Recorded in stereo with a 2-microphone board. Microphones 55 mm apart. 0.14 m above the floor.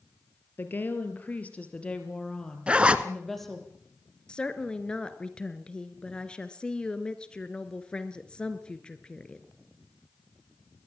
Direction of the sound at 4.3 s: 20° left (ahead or behind).